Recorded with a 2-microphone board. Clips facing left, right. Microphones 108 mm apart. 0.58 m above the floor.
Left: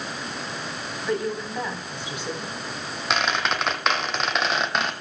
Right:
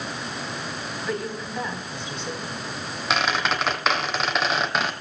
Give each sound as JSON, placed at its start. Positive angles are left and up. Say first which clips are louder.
{"t": 1.0, "sound": "a woman speaking", "louder": "left 4 dB", "side_deg": 15, "distance_m": 4.5}
{"t": 3.1, "sound": "a squeak", "louder": "right 1 dB", "side_deg": 0, "distance_m": 1.0}